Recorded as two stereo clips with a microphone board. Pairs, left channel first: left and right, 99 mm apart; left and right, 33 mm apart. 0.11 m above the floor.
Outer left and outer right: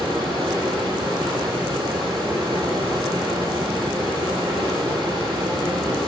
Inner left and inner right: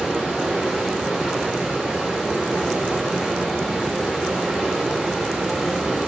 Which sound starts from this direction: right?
Running water, at 0.0 s.